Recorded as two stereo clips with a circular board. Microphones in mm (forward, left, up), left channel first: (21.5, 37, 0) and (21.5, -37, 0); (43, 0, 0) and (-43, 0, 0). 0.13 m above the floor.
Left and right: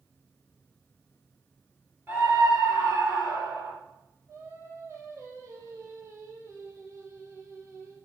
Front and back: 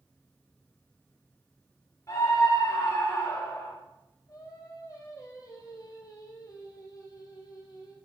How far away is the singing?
About 3.5 m.